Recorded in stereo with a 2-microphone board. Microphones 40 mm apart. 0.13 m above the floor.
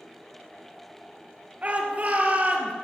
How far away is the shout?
About 2.5 m.